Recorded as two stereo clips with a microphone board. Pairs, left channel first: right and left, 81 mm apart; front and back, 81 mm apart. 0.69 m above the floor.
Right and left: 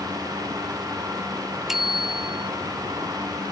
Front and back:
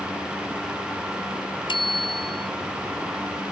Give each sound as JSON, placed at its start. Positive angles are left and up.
{"t": 1.7, "sound": "a bicycle bell", "azimuth_deg": 5}